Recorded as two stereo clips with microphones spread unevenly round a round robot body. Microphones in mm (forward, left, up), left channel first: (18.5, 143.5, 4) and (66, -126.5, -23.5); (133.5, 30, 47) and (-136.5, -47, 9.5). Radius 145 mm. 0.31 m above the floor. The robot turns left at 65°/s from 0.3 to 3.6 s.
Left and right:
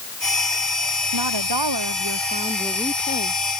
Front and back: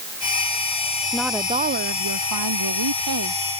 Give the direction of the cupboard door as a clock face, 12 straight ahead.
I don't hear a cupboard door.